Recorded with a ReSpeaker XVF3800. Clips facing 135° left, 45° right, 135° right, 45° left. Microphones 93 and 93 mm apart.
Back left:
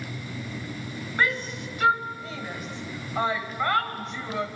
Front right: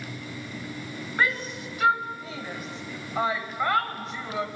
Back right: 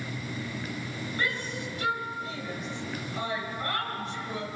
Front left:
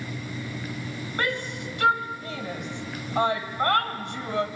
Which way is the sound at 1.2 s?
45° left.